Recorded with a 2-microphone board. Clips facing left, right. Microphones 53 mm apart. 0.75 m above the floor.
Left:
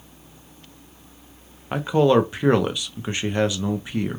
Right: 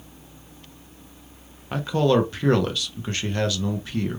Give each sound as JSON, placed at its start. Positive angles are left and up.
{"t": 1.7, "sound": "a man speaking", "side_deg": 20, "distance_m": 0.5}